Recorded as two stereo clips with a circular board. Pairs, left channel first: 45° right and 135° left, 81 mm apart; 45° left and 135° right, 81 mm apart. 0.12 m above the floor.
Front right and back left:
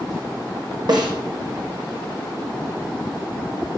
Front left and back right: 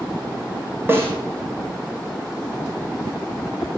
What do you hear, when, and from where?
0.9 s a snare drum: 165° left, 4.5 m